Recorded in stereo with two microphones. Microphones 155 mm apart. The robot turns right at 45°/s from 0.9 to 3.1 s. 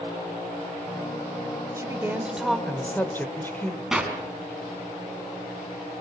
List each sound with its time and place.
1.8 s a woman speaking: 35° right, 1.4 m; by 3.8 s 25° left, 1.4 m
3.9 s a clap: 5° right (ahead or behind), 3 m